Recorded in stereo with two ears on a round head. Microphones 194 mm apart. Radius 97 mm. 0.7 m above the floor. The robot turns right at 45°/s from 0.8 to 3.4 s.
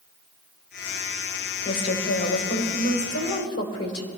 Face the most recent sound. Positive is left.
turn(degrees=100)